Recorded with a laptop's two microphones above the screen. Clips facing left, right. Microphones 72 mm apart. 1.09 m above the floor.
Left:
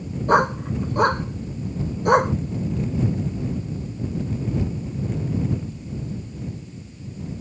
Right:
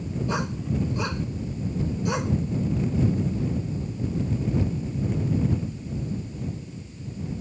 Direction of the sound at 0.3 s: 50° left (ahead or behind).